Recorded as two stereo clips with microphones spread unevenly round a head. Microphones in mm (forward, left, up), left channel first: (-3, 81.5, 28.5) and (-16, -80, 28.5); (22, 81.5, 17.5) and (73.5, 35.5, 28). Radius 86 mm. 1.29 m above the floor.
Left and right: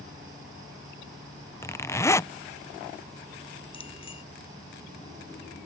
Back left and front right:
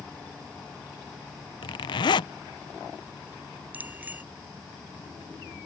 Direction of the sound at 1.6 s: 160° left.